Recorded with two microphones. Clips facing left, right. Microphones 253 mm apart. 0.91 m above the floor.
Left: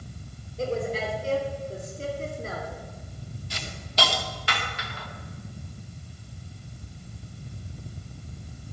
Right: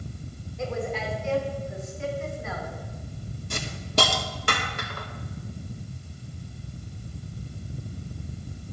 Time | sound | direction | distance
0.6 | a woman speaking | 35° left (ahead or behind) | 3 m
3.5 | a hiss | 55° right (ahead or behind) | 1.0 m